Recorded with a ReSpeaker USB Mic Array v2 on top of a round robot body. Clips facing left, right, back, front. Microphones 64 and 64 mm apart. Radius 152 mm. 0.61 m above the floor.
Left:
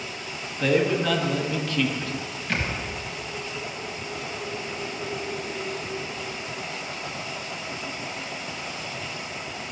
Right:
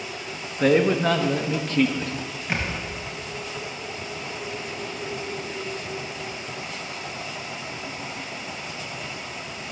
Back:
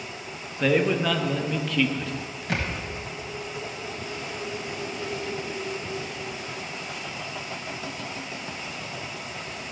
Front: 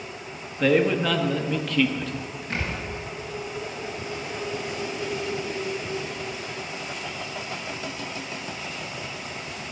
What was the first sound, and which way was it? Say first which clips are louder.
A man speaking: right 3 dB, front 2 dB; 95° right.